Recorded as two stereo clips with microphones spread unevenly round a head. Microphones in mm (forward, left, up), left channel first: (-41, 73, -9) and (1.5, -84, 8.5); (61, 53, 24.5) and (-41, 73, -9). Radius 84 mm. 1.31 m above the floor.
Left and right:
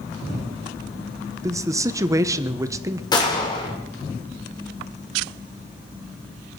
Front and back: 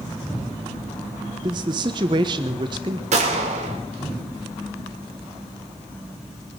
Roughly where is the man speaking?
Behind right.